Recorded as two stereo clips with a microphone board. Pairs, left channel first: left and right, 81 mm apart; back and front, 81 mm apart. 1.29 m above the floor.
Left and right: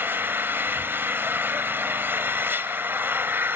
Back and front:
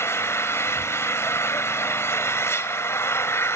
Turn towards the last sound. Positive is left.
turn(degrees=-140)